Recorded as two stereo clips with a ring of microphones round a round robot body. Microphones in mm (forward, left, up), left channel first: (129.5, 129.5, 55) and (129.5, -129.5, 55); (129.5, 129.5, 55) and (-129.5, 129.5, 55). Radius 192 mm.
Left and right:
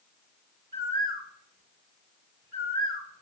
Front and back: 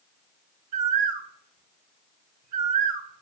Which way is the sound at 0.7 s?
170° right.